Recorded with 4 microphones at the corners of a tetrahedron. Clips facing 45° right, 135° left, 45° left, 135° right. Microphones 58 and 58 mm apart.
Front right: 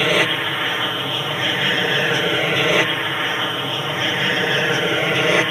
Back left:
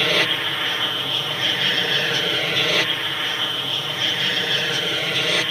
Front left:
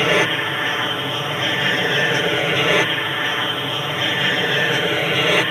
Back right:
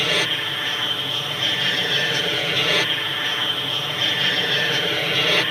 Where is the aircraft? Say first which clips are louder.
Front right 3 dB, front left 5 dB; 15° left; by 5.5 s 15° right.